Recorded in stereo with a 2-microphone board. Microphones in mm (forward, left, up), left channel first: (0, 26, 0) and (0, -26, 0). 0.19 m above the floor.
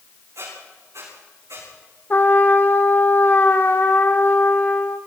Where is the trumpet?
40° left (ahead or behind), 1.7 m.